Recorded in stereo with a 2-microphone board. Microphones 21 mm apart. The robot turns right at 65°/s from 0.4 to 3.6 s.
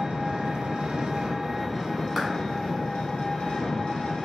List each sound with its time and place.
0.0 s an engine running: 100° right, 0.7 m; by 4.2 s 110° left, 0.7 m
2.2 s a clap: centre (ahead or behind), 1.0 m